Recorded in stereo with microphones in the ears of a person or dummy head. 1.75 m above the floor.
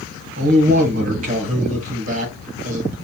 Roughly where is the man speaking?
Right.